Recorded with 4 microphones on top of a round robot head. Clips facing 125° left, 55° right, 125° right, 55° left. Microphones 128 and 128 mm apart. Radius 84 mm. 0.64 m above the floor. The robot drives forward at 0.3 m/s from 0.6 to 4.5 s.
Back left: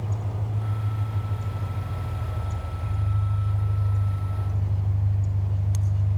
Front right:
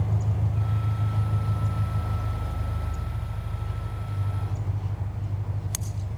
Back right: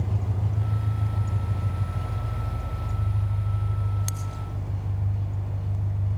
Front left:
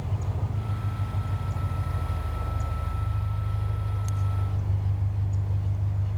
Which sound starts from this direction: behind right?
An engine running, at 0.0 s.